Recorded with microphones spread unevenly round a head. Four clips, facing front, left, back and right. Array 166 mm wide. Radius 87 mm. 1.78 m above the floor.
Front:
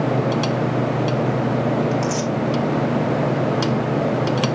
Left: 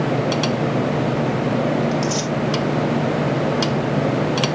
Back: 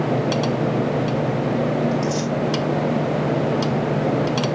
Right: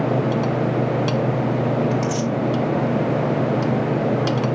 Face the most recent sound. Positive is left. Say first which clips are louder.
# even, front 1 dB
turn(degrees=0)